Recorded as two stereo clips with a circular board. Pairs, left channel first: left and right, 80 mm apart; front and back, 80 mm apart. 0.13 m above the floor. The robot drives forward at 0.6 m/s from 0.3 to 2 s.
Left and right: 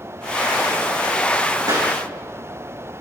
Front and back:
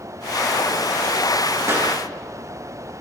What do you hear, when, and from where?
1.7 s a clap: 125° right, 6.5 m; by 1.9 s 130° right, 6.5 m